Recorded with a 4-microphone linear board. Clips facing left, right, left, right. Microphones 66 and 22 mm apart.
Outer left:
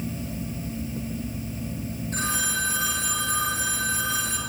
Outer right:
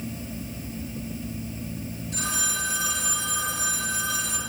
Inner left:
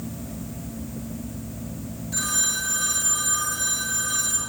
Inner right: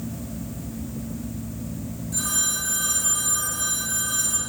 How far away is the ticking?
No ticking in this recording.